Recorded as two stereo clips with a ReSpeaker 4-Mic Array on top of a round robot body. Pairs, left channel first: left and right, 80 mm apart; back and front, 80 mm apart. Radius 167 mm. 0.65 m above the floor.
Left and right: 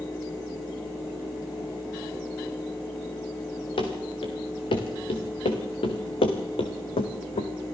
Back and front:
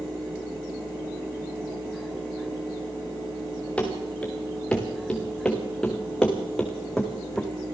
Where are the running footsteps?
105° left, 4.5 m; by 7.5 s 95° left, 2.5 m.